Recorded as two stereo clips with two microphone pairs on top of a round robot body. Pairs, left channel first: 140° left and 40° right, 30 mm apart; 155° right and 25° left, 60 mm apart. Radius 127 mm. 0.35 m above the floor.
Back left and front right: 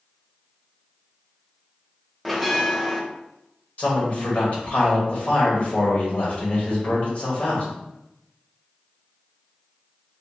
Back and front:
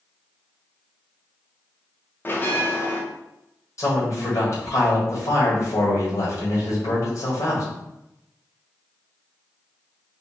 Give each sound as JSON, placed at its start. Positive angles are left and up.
{"t": 2.2, "sound": "a bell", "azimuth_deg": -125, "distance_m": 0.8}
{"t": 3.8, "sound": "a man speaking", "azimuth_deg": 180, "distance_m": 1.8}